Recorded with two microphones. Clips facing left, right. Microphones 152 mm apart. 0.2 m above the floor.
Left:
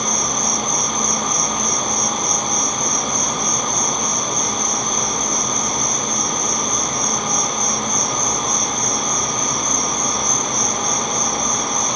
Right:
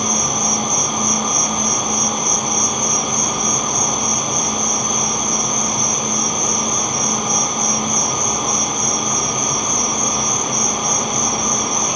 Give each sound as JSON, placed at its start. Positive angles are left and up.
{"t": 0.0, "sound": "an insect", "side_deg": 30, "distance_m": 3.0}